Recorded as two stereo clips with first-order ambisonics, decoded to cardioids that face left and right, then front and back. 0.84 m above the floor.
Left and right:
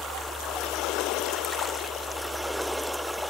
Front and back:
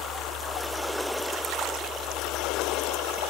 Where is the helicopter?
5° left.